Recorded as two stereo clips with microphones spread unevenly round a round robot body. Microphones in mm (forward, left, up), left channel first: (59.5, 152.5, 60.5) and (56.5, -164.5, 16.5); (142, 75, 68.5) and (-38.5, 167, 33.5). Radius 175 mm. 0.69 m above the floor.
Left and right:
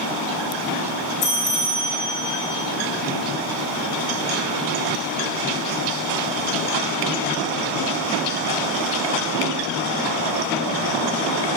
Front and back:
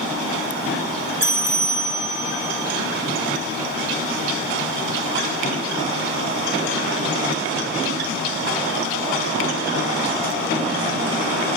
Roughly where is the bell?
Left.